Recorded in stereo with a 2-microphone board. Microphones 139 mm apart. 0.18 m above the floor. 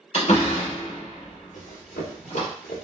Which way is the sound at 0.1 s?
55° left (ahead or behind).